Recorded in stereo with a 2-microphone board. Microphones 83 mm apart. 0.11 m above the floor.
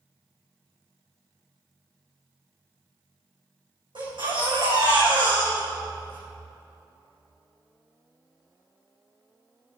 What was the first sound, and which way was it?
A baby crying, 70° right (ahead or behind).